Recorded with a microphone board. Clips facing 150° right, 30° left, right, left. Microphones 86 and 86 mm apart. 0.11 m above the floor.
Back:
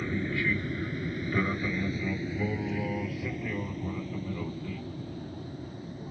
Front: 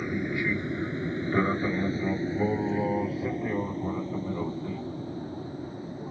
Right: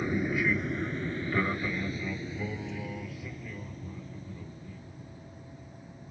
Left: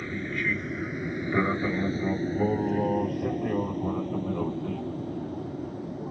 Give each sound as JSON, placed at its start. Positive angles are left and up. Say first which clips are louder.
{"t": 0.0, "sound": "an aircraft", "louder": "front 1 dB, right 2 dB", "azimuth_deg": -30}